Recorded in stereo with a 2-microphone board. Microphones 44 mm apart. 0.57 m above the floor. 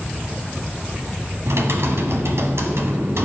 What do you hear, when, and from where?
1.5 s typing on a keyboard: 75° right (ahead or behind), 0.9 m